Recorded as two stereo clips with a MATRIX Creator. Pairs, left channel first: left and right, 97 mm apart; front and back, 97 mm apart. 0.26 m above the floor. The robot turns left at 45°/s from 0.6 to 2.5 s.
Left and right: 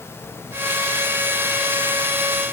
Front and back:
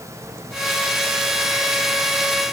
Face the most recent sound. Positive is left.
No sound to turn to.